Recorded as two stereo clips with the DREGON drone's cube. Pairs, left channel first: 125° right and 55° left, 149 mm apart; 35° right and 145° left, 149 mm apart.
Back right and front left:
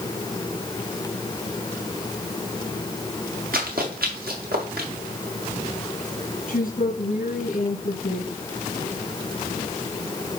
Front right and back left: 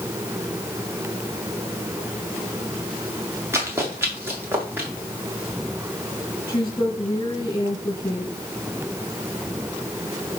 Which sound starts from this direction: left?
Running footsteps, at 3.5 s.